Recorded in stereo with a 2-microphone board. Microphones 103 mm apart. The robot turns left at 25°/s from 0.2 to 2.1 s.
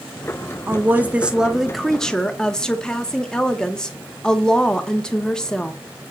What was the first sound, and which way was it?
A woman speaking, 155° right.